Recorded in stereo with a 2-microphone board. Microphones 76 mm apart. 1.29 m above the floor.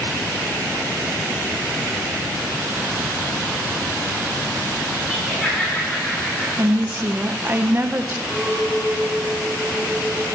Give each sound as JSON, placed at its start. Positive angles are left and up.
{"t": 5.1, "sound": "laughter", "side_deg": 15, "distance_m": 3.0}
{"t": 6.6, "sound": "a woman speaking", "side_deg": -30, "distance_m": 0.7}
{"t": 8.3, "sound": "a clink", "side_deg": 10, "distance_m": 3.5}